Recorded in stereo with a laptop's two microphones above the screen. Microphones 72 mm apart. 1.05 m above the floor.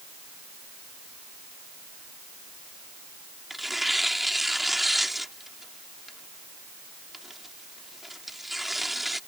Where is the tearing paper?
5° right (ahead or behind).